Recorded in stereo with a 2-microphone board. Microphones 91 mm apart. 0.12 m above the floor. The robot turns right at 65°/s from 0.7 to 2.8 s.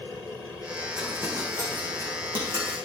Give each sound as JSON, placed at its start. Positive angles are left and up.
{"t": 1.0, "sound": "crumpling", "side_deg": -10, "distance_m": 6.0}